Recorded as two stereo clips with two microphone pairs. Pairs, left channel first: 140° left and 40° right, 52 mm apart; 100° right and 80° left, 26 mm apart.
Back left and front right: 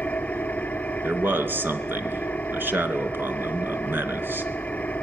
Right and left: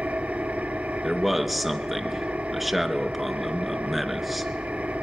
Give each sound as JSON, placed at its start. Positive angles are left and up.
{"t": 0.0, "sound": "an engine running", "azimuth_deg": 80, "distance_m": 1.6}
{"t": 1.0, "sound": "a man speaking", "azimuth_deg": -5, "distance_m": 2.0}